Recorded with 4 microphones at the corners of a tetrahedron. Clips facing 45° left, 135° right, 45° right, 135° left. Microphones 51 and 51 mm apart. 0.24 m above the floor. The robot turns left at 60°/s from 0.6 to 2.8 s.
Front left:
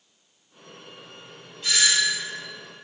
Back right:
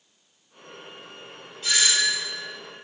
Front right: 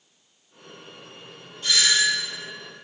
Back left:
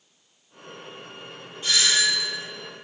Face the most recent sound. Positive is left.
turn(degrees=80)